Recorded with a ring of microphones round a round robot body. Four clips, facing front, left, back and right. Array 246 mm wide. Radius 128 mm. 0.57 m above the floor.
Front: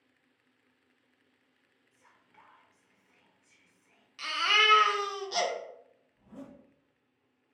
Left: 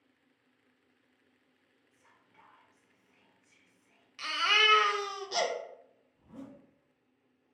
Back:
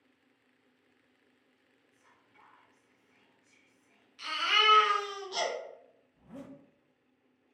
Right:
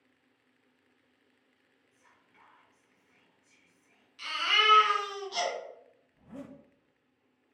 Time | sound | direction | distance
1.9 | whispering | 5° right | 1.6 m
4.2 | a baby crying | 45° left | 0.7 m
6.1 | a zipper | 115° right | 0.6 m